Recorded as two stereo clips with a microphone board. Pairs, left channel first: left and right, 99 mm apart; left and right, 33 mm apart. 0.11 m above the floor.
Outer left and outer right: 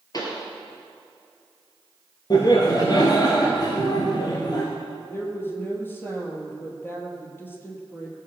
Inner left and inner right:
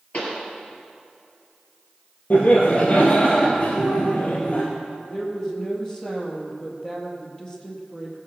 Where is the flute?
I don't hear a flute.